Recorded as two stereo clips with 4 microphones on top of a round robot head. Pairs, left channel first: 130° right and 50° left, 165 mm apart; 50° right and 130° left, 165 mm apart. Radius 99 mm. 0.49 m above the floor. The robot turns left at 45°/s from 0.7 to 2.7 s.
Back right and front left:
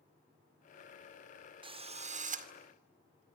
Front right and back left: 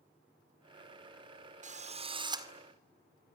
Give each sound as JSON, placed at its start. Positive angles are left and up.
{"t": 1.6, "sound": "a drill", "azimuth_deg": 105, "distance_m": 2.0}